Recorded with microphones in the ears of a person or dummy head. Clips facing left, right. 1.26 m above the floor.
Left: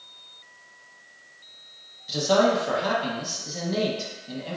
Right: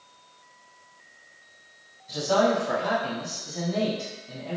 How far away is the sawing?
No sawing in this recording.